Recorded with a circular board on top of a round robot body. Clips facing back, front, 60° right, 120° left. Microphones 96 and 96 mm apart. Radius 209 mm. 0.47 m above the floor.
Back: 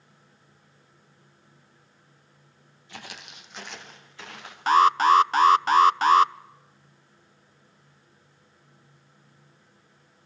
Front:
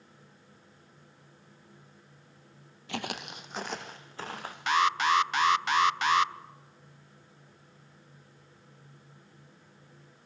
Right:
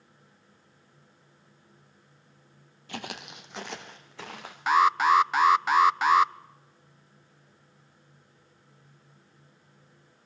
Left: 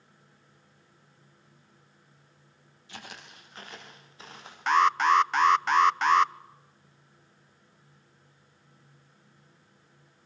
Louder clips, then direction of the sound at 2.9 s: Front 7 dB, right 7 dB; 25° right.